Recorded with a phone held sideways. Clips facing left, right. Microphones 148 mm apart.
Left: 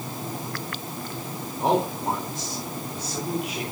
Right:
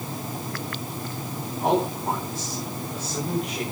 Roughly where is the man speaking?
Left.